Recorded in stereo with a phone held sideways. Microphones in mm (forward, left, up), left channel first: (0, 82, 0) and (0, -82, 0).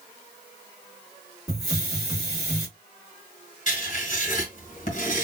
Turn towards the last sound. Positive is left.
turn(degrees=50)  # may be behind; listen again after turning